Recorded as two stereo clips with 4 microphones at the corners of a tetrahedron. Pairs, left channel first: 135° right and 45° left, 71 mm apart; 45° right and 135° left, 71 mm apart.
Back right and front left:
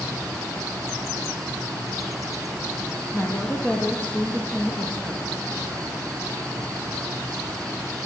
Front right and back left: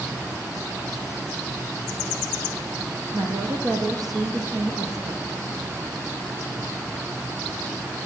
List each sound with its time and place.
0.0 s an insect: 85° left, 8 m
3.1 s a woman speaking: 165° left, 9 m